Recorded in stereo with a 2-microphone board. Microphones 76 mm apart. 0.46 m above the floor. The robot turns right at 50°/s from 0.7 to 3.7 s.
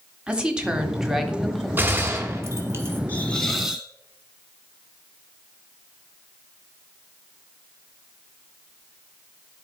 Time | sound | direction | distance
0.3 | a woman speaking | 10° right (ahead or behind) | 1.1 m
1.8 | a gunshot | 130° right | 1.1 m
3.1 | a hiss | 155° left | 1.2 m